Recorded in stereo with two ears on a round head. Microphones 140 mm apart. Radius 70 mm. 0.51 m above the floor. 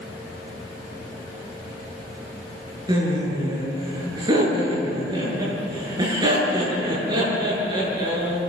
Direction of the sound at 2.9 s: 25° right (ahead or behind).